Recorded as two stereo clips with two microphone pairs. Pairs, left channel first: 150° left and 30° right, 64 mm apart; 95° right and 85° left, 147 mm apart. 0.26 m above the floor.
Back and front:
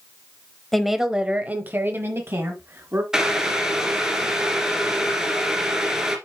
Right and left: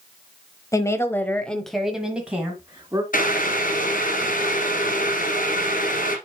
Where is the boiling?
110° right, 1.6 m.